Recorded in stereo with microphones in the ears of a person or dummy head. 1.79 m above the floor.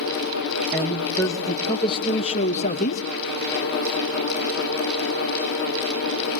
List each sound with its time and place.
0.7 s a man speaking: 10° left (ahead or behind), 1.8 m; by 3.1 s 50° left (ahead or behind), 2.5 m